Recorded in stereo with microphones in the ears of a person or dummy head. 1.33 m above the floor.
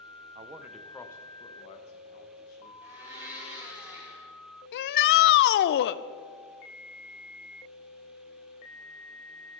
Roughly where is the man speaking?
Right.